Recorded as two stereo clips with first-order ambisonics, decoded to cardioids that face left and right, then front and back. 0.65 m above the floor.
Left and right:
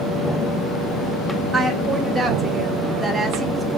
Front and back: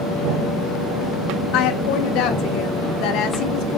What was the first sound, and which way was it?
A woman speaking, 5° right.